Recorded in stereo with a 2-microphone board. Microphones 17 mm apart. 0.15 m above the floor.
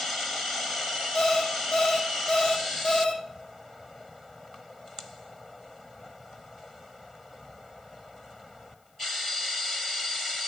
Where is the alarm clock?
65° left (ahead or behind), 3 m.